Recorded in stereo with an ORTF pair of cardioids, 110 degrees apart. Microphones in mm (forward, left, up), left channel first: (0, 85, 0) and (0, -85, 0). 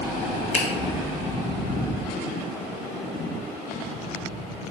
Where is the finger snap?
35° left, 0.7 m.